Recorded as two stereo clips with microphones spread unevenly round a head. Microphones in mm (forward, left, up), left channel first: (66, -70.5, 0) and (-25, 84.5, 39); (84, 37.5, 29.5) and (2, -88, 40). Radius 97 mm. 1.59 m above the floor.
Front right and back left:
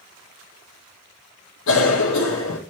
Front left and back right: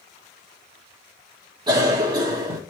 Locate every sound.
1.7 s a cough: 65° right, 1.7 m